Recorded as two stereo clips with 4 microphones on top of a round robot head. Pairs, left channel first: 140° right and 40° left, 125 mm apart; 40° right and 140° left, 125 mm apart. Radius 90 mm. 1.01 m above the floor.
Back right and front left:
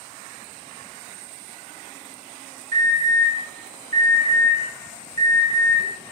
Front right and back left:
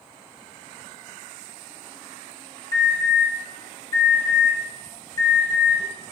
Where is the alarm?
20° left, 5.5 m.